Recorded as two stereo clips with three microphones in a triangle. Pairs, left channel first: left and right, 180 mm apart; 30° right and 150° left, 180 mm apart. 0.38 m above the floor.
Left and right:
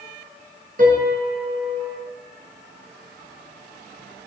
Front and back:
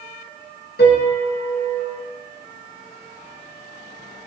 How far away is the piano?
About 1.0 m.